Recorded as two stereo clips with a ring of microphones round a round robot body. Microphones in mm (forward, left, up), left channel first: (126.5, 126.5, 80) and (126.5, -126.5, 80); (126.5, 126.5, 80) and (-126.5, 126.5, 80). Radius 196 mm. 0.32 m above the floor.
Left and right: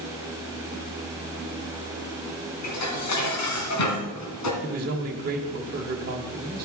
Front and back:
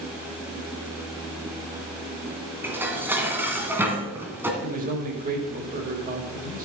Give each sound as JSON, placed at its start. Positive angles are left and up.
{"t": 2.6, "sound": "dishes clattering", "azimuth_deg": 100, "distance_m": 2.5}
{"t": 4.6, "sound": "a man speaking", "azimuth_deg": -130, "distance_m": 1.4}